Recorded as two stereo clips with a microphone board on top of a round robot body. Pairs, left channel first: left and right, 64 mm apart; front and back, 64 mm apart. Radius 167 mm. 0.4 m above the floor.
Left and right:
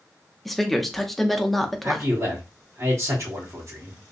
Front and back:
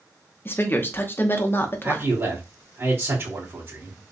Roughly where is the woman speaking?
Ahead.